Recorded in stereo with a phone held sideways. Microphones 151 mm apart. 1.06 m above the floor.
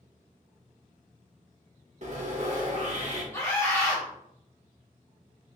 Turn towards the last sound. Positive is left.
turn(degrees=20)  # may be behind; listen again after turning